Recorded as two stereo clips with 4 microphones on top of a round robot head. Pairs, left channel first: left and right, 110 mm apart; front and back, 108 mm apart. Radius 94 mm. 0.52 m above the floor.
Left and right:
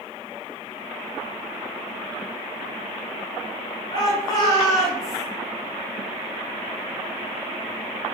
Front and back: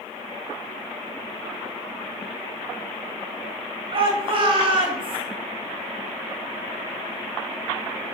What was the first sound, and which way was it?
A shout, 145° left.